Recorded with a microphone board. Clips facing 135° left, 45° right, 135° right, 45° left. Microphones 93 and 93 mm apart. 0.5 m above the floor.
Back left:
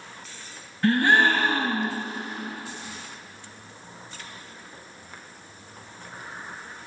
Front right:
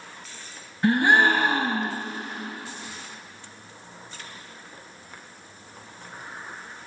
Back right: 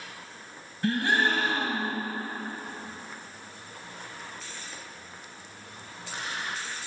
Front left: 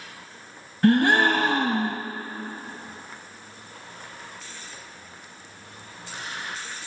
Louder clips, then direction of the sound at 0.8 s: Front right 1 dB, front left 7 dB; 25° left.